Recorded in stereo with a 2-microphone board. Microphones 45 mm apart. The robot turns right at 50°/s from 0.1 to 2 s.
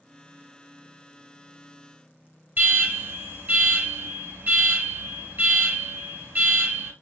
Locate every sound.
2.6 s an alarm: 50° right (ahead or behind), 2.5 m